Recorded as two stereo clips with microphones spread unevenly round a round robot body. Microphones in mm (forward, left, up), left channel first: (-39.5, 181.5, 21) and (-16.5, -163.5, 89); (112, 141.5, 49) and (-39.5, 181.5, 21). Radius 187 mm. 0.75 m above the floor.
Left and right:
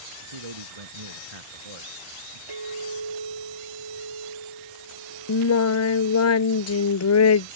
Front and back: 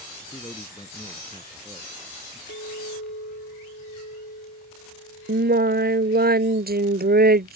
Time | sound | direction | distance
0.2 | a man speaking | 90° right | ?
2.5 | a clink | 60° right | ?
5.3 | singing | 145° left | ?